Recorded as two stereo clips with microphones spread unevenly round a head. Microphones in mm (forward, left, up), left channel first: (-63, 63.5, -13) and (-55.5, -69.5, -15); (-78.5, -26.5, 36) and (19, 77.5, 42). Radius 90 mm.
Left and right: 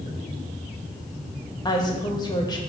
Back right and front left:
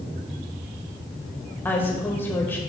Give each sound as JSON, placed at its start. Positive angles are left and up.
{"t": 1.6, "sound": "a woman speaking", "azimuth_deg": 150, "distance_m": 1.6}